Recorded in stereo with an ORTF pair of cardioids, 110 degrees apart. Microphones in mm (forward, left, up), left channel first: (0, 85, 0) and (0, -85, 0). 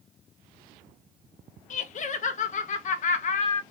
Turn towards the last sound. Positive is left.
turn(degrees=45)